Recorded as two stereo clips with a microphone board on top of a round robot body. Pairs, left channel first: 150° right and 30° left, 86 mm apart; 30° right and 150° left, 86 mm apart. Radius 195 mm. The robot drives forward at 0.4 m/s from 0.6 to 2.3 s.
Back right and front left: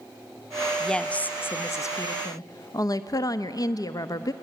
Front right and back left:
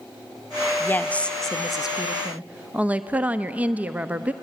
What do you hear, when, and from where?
0.8 s a woman speaking: 70° right, 0.8 m; by 4.3 s 140° right, 0.9 m